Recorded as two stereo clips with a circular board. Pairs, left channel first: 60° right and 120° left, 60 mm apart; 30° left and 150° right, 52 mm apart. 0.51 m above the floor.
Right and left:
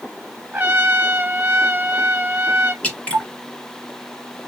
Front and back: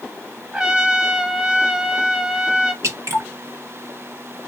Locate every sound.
0.5 s a trumpet: 150° left, 0.6 m
2.8 s dripping: 130° right, 1.3 m